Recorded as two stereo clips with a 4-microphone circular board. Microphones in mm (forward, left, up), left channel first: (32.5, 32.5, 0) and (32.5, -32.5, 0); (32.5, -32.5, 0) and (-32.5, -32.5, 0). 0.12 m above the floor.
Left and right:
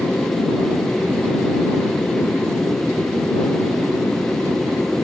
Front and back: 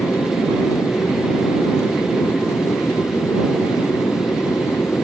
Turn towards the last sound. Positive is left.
turn(degrees=20)